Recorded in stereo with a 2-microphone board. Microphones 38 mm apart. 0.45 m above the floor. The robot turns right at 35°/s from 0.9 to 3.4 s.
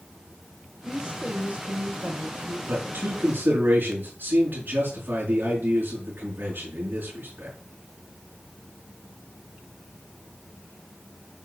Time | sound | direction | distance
0.8 | a woman speaking | 155° right | 1.3 m
2.7 | a man speaking | 80° right | 4.5 m